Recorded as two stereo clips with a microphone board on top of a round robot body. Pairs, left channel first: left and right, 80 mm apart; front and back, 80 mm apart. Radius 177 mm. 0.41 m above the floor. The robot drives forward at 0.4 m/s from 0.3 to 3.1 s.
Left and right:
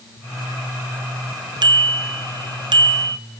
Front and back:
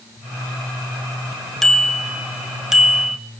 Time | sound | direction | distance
1.6 | a bicycle bell | 85° right | 2.5 m